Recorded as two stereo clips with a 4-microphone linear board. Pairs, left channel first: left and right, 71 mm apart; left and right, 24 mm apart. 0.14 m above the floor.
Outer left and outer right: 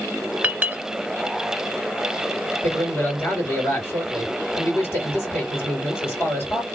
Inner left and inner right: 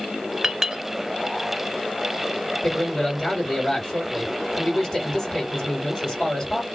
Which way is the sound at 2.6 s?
30° left (ahead or behind).